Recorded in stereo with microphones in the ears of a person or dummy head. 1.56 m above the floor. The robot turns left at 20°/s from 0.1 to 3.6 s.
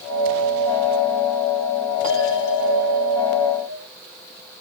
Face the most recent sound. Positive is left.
turn(degrees=120)